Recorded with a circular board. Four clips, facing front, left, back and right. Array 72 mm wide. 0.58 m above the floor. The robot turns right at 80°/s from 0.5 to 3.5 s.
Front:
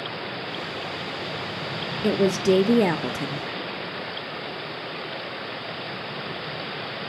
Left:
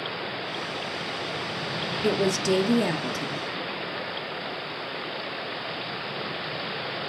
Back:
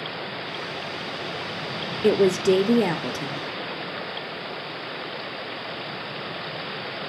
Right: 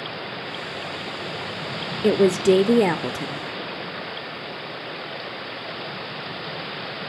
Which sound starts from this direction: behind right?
A woman speaking, at 2.0 s.